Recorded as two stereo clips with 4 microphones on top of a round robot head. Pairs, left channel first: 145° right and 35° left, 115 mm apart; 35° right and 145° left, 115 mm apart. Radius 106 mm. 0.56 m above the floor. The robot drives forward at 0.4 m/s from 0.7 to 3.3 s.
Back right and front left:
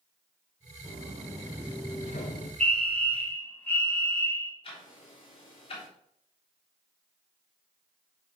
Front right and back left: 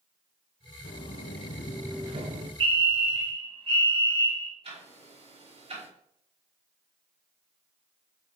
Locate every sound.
0.8 s footsteps: 25° right, 1.7 m; by 2.5 s 175° left, 1.1 m
2.6 s a fire alarm: 140° left, 2.5 m; by 4.5 s 145° left, 2.5 m
4.6 s ticking: 175° left, 3 m